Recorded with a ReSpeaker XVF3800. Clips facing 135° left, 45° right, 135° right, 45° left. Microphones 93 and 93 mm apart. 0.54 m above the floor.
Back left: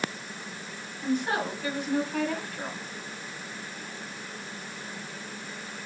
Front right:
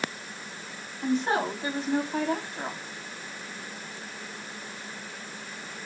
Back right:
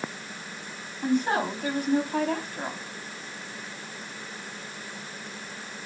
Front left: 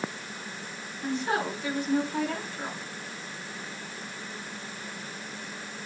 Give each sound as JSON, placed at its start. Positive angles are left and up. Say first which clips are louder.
{"t": 1.0, "sound": "a woman speaking", "louder": "front right 2 dB, back right 4 dB", "azimuth_deg": -105, "distance_m": 4.5}